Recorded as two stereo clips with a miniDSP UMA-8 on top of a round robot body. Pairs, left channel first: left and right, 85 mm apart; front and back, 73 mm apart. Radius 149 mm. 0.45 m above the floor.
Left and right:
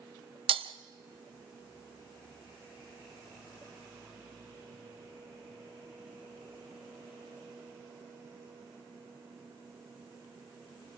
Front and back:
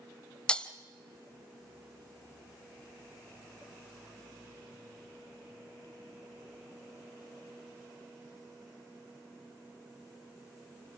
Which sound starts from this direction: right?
Breaking glass, at 0.5 s.